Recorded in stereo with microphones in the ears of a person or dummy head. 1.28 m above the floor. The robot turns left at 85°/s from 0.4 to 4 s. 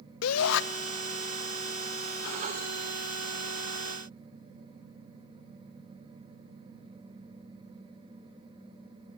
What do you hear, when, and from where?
0.2 s a shout: 75° left (ahead or behind), 0.9 m; by 0.6 s 60° left (ahead or behind), 0.9 m